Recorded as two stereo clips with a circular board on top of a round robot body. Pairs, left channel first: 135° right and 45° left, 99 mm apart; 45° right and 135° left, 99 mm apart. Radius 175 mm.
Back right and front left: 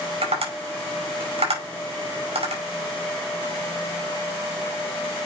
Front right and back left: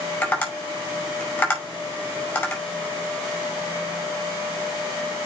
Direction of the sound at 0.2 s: 30° left.